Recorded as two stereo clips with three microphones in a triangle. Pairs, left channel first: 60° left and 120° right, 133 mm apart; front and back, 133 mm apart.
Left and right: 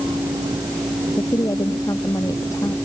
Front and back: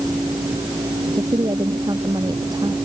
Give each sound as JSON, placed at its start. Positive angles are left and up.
{"t": 1.1, "sound": "a woman speaking", "azimuth_deg": 125}